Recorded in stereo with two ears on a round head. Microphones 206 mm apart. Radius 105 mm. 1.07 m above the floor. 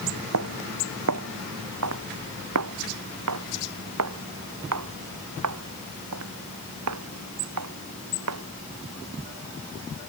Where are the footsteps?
75° right (ahead or behind); by 8.4 s 80° right.